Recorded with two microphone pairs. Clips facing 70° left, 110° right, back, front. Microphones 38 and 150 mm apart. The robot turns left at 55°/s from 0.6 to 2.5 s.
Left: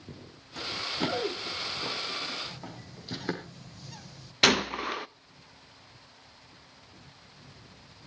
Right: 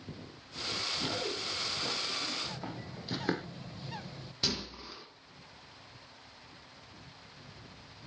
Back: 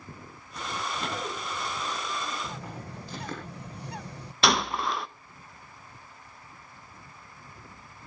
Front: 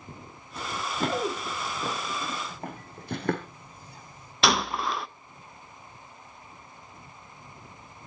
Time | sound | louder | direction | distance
0.6 | running footsteps | left 4 dB, front 3 dB | 65° left | 4.5 m
2.4 | a bird | right 2 dB, even | 170° right | 1.1 m
4.4 | a gunshot | left 14 dB, even | 90° left | 0.7 m